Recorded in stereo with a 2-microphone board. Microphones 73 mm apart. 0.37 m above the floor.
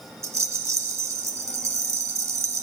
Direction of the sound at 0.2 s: 40° right (ahead or behind).